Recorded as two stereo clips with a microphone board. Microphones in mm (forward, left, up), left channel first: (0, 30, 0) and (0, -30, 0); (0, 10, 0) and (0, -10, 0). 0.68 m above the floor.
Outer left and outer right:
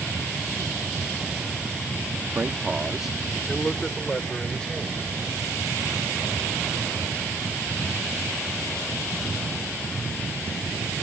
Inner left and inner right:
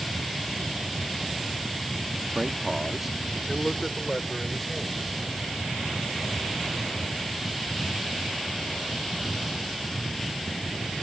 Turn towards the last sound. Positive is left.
turn(degrees=20)  # may be behind; listen again after turning